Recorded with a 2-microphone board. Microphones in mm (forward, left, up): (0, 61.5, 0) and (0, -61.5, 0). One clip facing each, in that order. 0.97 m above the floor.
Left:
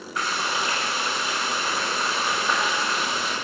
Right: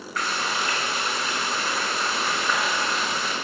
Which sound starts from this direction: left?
Frying, at 0.2 s.